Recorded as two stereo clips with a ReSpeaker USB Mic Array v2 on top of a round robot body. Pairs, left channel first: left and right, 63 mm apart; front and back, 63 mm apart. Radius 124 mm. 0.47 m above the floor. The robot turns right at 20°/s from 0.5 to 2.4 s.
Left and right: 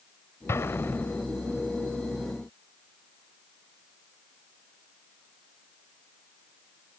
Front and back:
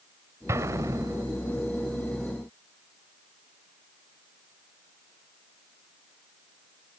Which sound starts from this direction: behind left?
An explosion, at 0.5 s.